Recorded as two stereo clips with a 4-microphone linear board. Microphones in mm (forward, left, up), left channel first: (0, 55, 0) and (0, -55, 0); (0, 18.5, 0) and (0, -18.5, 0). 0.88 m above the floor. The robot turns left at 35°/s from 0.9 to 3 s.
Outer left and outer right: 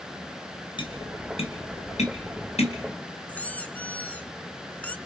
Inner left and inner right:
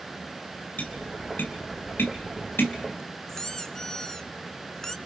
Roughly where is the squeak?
Centre.